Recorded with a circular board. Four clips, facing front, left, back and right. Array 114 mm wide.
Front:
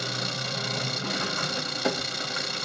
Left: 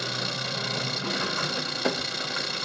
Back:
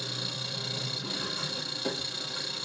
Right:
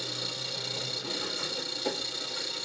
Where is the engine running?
55° left, 0.8 m.